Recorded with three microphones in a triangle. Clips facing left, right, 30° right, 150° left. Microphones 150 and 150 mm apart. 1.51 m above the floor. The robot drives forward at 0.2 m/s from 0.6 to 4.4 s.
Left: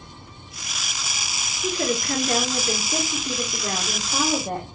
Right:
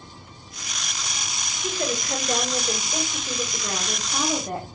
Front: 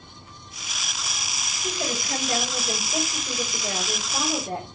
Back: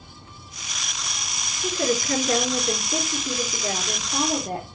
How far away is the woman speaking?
About 4 m.